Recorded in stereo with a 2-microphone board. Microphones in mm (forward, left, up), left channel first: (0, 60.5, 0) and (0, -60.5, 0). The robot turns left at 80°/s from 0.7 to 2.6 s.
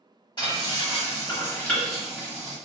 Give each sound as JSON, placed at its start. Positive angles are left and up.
{"t": 0.4, "sound": "frying", "side_deg": 40, "distance_m": 1.2}